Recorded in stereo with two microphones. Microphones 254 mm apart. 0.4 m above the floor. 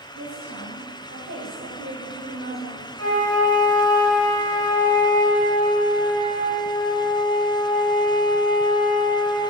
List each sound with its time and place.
0.1 s a woman speaking: 65° right (ahead or behind), 3 m; by 2.9 s 30° right (ahead or behind), 1.4 m
3.0 s a flute: 70° right (ahead or behind), 3 m